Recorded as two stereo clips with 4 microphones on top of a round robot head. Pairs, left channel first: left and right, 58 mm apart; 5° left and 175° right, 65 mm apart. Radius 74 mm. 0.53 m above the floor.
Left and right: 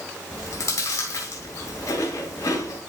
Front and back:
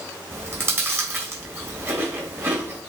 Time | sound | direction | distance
0.3 | chewing | 135° left | 3.5 m